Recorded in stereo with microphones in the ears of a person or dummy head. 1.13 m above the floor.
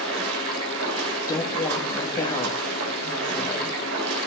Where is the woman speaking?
20° left (ahead or behind), 2 m.